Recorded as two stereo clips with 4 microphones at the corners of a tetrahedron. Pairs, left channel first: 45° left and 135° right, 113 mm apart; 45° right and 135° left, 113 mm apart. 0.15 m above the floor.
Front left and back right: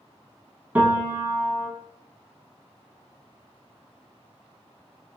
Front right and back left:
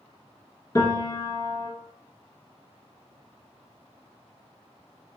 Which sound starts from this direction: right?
A piano, at 0.8 s.